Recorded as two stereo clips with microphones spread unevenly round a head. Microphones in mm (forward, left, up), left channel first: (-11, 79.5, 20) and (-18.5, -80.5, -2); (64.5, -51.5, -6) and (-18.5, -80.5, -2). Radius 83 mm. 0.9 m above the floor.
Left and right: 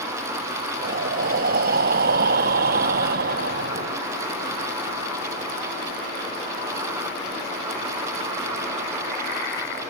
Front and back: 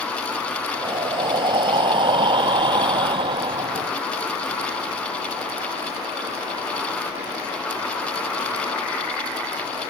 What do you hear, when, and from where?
0.8 s breathing: 130° right